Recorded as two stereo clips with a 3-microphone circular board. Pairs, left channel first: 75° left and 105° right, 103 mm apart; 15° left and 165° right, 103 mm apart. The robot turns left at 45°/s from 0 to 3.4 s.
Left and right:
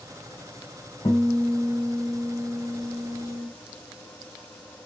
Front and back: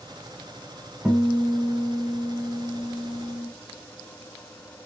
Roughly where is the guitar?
Behind left.